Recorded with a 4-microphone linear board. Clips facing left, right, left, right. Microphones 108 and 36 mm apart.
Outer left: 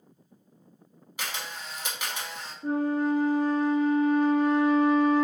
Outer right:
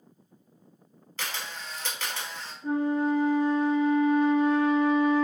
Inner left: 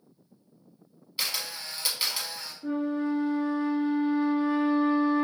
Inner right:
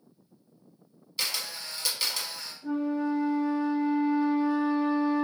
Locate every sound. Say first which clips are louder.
1.2 s a camera shutter: even, even; 15° left (ahead or behind), 0.7 m
2.6 s a flute: even, even; 45° left (ahead or behind), 0.7 m